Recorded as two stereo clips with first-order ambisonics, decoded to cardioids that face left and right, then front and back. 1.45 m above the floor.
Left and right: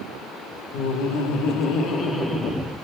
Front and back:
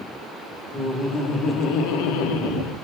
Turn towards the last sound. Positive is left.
turn(degrees=-20)